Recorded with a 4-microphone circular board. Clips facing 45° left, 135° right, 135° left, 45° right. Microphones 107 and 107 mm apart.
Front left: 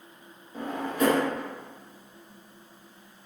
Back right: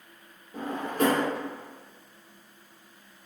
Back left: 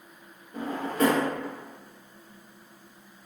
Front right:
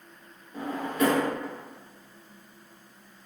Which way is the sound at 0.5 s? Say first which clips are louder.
Even, even; 175° right.